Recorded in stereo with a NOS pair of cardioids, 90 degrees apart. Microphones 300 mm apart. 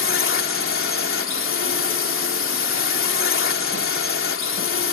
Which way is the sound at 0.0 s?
45° left.